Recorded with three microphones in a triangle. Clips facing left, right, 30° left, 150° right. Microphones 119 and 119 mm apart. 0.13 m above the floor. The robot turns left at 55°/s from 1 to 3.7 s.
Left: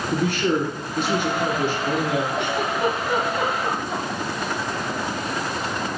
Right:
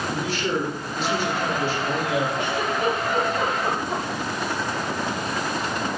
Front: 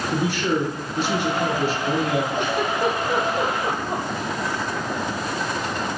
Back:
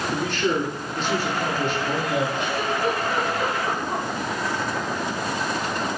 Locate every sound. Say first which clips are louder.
0.1 s a man speaking: left 6 dB, front 2 dB; 110° left, 2 m; by 2.3 s 40° left, 2 m
2.4 s a giggle: left 1 dB, front 2 dB; 65° left, 1.7 m; by 4.0 s 10° right, 1.7 m